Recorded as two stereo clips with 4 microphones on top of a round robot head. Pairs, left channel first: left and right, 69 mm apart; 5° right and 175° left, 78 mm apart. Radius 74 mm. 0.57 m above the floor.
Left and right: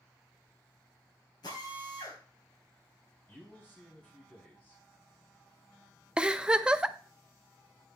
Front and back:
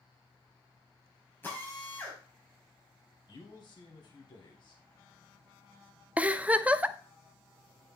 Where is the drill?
60° left, 4.5 m.